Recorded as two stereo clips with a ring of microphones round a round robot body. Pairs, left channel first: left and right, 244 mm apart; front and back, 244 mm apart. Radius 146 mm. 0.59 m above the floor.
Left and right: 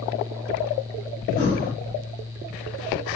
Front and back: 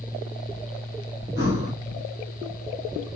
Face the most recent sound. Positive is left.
turn(degrees=105)